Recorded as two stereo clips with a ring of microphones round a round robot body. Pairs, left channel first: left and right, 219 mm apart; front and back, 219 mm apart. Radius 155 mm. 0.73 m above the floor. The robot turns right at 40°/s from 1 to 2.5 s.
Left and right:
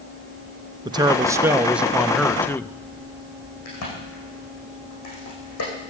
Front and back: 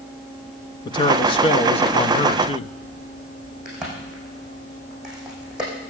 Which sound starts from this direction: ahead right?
A man speaking, at 0.8 s.